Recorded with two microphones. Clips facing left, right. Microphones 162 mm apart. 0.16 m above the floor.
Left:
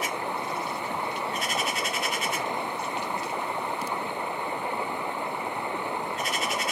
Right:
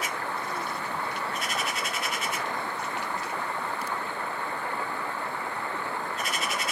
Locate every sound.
0.0 s running water: 20° left (ahead or behind)